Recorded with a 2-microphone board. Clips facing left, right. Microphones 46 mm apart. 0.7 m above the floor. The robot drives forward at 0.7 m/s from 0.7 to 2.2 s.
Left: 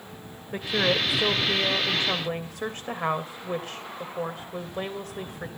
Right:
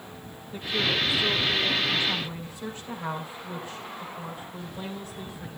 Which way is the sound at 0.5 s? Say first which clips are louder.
Left 3 dB; 80° left.